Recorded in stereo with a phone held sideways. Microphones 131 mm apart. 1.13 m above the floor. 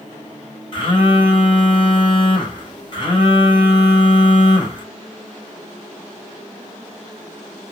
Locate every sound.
0.7 s a phone buzzing: 40° left (ahead or behind), 3.5 m